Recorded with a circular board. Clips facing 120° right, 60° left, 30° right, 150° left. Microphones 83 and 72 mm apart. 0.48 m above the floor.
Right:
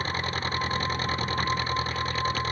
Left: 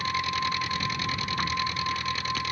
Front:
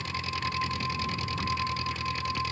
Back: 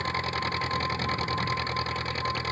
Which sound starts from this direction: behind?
An engine running, at 0.0 s.